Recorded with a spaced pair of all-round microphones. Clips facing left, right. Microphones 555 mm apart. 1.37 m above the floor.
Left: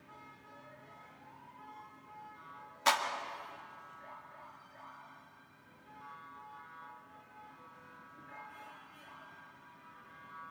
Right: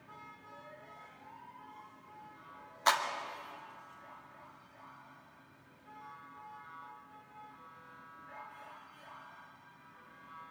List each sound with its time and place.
2.9 s a clap: 50° left (ahead or behind), 1.8 m